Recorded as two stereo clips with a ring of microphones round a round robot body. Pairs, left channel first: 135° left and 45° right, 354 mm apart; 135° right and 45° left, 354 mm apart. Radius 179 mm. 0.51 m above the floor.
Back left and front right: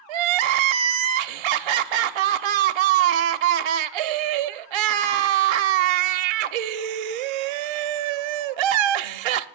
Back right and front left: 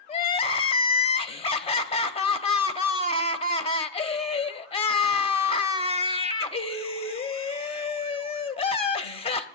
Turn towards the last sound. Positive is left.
turn(degrees=-60)